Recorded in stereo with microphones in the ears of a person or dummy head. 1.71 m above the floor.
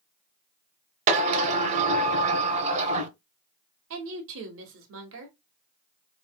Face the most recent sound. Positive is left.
turn(degrees=-65)  # may be behind; listen again after turning